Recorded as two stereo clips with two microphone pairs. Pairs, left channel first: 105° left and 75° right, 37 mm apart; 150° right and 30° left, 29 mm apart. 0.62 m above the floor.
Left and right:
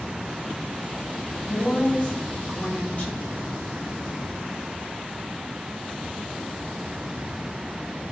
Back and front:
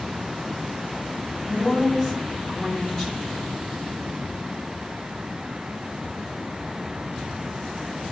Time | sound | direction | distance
1.5 | a woman speaking | 130° left | 1.4 m